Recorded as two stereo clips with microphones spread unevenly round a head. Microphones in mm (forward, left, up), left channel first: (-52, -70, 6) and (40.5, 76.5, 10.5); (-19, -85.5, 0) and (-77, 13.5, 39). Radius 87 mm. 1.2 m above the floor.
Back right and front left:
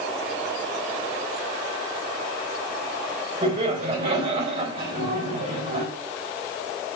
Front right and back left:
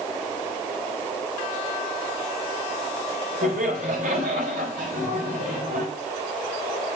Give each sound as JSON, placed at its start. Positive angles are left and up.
{"t": 3.4, "sound": "laughter", "azimuth_deg": 115, "distance_m": 4.5}